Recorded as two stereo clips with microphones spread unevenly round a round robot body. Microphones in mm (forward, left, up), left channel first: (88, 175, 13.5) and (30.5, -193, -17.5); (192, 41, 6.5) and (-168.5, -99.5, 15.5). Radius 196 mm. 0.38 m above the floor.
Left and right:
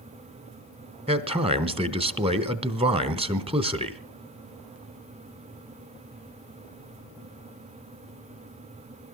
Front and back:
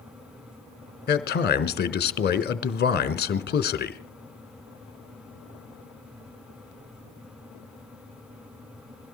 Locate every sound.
1.1 s a man speaking: 35° right, 1.2 m